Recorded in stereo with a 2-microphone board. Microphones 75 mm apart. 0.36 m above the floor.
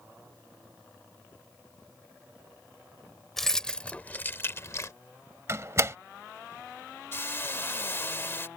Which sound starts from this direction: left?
A hiss, at 7.1 s.